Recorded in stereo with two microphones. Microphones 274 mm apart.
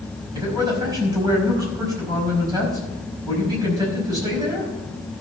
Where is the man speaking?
15° right (ahead or behind), 5 m.